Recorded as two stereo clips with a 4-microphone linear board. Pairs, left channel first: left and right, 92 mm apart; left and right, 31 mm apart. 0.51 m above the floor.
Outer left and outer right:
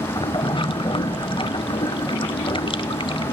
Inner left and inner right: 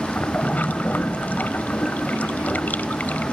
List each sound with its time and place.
0.0 s running water: 70° left (ahead or behind), 0.9 m